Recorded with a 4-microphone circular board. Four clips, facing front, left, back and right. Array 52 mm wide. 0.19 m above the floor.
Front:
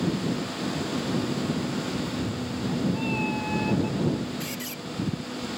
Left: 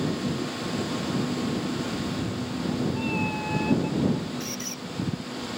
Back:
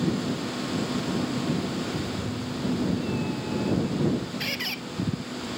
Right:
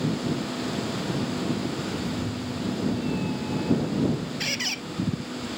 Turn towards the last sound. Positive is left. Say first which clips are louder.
# right 6 dB, back 4 dB
turn(degrees=-125)